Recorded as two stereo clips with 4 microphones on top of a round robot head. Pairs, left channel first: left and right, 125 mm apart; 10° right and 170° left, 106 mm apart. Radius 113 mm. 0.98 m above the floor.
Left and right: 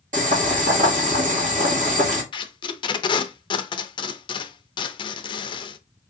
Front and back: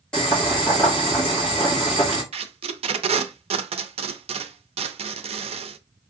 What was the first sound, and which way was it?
Boiling, 90° right.